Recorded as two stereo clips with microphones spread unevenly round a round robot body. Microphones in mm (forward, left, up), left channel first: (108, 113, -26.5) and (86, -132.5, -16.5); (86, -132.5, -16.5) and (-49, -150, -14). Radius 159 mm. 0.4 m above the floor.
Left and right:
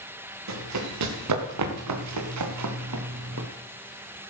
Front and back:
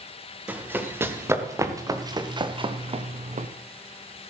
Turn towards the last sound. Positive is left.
turn(degrees=-140)